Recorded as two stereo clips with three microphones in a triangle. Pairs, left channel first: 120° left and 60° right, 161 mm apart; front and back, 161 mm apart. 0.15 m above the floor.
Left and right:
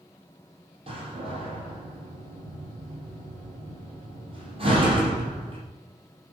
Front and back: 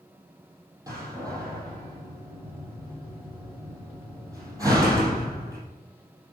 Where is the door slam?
110° right, 4.5 m.